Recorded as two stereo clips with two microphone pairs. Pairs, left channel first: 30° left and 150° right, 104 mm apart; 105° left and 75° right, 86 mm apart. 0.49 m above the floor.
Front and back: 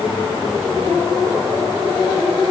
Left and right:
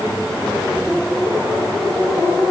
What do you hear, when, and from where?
Only background noise.